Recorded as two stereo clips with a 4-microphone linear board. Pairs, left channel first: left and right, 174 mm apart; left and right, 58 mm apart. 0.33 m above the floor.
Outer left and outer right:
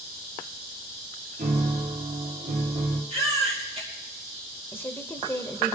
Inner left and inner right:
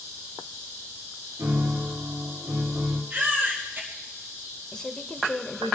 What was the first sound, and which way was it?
A piano, 55° right (ahead or behind).